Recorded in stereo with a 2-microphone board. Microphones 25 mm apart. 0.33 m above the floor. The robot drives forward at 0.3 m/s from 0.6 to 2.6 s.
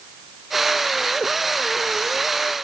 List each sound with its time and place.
Only background noise.